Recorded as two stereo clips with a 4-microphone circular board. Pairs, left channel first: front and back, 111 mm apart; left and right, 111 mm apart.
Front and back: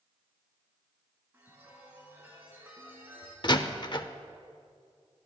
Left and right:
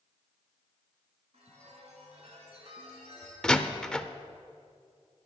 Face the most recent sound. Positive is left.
turn(degrees=10)